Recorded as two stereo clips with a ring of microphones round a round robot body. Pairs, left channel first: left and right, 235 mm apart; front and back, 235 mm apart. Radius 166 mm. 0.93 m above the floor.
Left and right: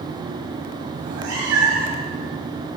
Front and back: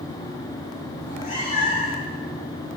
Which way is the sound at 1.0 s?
75° right.